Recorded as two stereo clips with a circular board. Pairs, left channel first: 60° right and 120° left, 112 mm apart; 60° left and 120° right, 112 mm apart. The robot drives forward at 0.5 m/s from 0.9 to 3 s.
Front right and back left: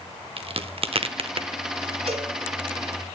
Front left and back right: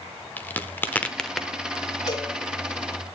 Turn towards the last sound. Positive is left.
turn(degrees=125)